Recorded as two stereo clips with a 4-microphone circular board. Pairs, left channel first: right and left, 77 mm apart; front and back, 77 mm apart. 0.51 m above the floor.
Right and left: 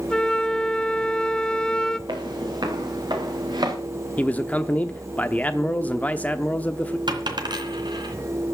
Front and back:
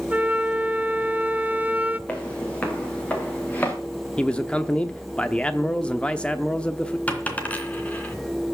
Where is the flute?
155° right, 0.6 m.